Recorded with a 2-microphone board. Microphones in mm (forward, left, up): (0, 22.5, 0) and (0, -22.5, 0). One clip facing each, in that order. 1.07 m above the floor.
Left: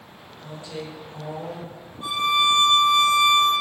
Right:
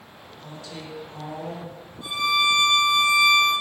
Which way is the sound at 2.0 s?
60° left (ahead or behind).